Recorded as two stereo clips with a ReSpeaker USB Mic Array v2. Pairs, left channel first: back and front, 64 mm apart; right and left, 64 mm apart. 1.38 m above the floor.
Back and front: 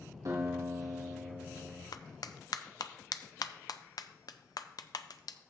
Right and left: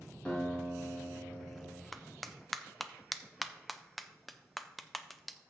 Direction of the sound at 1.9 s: Straight behind.